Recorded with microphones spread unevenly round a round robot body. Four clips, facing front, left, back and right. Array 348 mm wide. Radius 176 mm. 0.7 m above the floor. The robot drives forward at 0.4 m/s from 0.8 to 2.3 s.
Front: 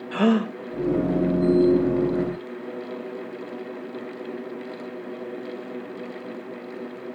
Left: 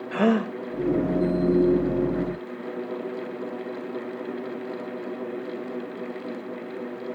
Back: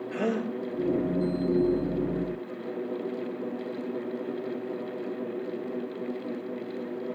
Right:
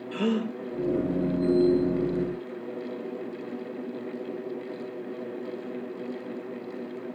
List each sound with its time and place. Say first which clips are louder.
0.1 s a gasp: left 5 dB, front 9 dB; 50° left, 0.8 m